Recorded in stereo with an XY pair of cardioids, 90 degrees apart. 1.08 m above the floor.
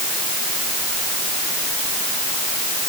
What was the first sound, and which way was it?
Only background noise.